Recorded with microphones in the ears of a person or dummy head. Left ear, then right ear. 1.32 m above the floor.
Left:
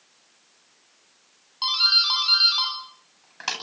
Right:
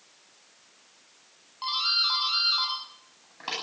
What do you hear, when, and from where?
1.6 s a doorbell: 70° left (ahead or behind), 10 m